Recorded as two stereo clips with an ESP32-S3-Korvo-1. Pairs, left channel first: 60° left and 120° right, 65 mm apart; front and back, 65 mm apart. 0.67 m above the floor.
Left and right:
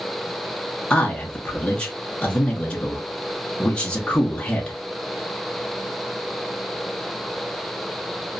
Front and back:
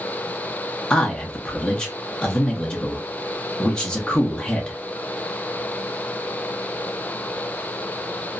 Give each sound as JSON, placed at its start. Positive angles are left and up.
{"t": 0.9, "sound": "a man speaking", "azimuth_deg": 35, "distance_m": 0.6}